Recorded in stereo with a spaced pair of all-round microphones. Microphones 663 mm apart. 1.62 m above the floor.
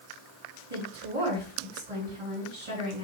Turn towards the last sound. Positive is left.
turn(degrees=-80)